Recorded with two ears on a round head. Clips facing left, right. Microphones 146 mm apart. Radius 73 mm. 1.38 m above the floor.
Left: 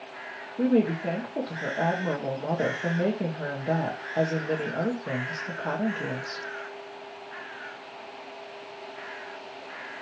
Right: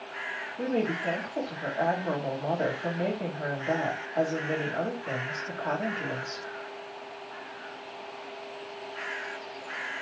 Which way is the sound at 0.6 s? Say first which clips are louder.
Left 6 dB; 40° left (ahead or behind).